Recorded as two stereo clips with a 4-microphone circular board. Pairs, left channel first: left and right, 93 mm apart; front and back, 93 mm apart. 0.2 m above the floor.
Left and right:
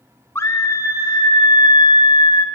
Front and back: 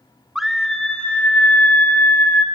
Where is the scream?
100° left, 1.3 m; by 2.5 s 65° left, 3.5 m.